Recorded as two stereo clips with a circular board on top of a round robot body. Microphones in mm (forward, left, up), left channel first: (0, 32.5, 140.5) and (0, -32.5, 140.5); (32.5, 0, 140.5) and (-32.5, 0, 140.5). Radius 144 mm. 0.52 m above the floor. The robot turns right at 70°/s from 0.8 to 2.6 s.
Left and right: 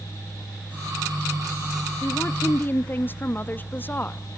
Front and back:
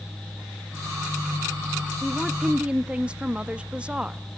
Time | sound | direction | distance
2.0 | a woman speaking | 75° left | 0.9 m